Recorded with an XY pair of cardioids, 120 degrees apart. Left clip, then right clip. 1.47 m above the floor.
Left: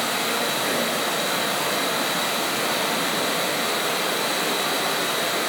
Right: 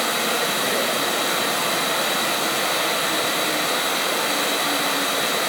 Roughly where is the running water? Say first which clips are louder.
Right 2 dB; ahead right.